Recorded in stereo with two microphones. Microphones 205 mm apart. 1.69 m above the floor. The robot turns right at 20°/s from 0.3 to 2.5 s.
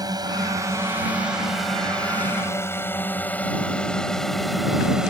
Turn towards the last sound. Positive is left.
turn(degrees=-5)  # may be behind; listen again after turning